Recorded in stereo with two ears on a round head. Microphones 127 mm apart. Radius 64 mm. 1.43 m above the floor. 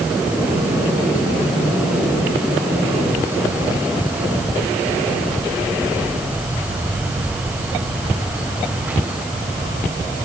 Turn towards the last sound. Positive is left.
No sound to turn to.